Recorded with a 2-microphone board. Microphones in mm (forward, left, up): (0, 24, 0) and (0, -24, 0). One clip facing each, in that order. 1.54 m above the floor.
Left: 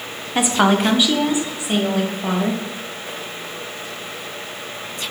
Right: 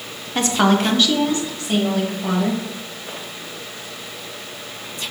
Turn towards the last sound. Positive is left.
turn(degrees=15)  # may be behind; listen again after turning